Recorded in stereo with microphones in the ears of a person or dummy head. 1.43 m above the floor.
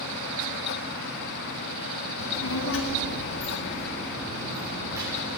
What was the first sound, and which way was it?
A child speaking, 70° left (ahead or behind).